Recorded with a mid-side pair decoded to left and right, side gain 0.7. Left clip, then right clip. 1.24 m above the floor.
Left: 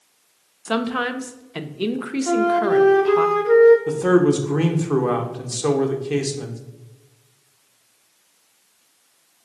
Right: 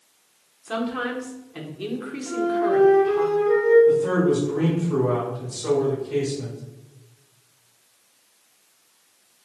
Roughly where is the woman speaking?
Ahead left.